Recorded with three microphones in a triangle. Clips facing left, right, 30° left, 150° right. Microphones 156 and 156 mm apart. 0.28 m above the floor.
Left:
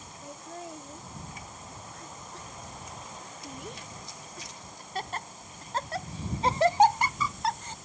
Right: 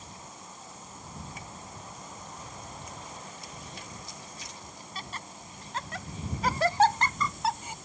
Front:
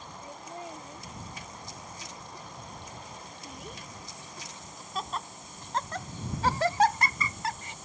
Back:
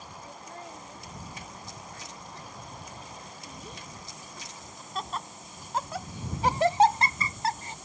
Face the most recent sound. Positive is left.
turn(degrees=-160)